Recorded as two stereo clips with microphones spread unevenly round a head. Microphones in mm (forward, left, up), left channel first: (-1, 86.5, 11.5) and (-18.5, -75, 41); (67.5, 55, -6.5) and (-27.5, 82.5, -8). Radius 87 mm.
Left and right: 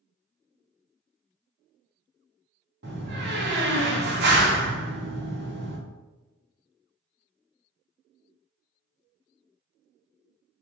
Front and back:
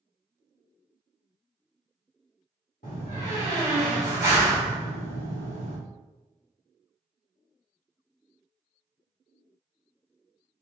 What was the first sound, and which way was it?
A door slam, 60° right.